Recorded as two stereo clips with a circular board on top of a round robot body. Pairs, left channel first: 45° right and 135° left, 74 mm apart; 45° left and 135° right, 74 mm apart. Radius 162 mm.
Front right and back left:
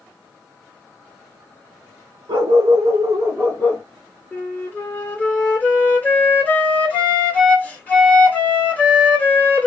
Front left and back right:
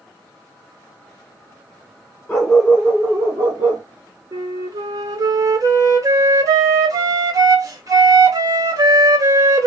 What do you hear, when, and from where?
2.3 s a dog barking: 120° left, 0.8 m; by 3.8 s 105° right, 0.7 m
4.3 s a flute: 110° right, 1.6 m